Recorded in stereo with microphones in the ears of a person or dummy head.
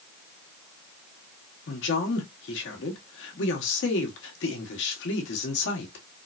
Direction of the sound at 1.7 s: 75° left (ahead or behind).